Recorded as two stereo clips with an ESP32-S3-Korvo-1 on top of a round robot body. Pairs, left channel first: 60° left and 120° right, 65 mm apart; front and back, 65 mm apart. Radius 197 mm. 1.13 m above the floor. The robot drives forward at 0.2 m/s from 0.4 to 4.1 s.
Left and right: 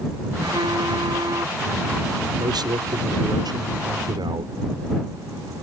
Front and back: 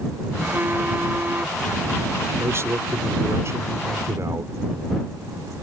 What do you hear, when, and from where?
0.4 s a phone buzzing: 115° right; by 1.6 s 120° right
2.4 s a man speaking: 130° right